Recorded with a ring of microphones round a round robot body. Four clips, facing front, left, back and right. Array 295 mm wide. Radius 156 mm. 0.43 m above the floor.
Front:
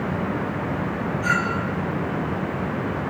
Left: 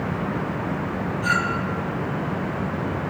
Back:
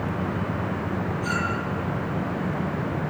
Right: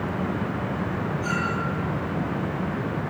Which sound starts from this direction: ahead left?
A clink, at 1.2 s.